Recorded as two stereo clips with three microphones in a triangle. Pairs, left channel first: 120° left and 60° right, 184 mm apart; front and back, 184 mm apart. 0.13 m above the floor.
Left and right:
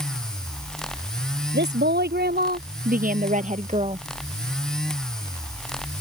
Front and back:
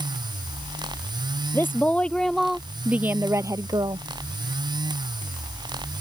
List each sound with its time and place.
1.5 s a woman speaking: 75° right; by 4.1 s 115° right